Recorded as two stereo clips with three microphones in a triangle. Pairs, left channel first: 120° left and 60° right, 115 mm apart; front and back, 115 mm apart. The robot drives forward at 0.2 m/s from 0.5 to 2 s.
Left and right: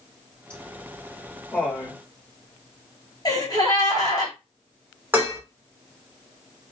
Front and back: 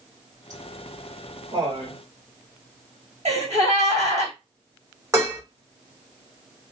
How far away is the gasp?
About 1.9 m.